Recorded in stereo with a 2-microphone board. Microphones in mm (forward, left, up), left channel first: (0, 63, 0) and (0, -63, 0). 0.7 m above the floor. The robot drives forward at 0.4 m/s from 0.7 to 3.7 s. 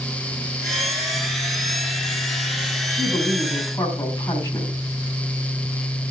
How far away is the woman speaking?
About 5 m.